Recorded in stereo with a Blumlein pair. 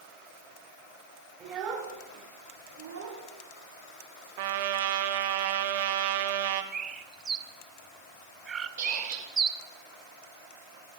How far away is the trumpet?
About 0.9 m.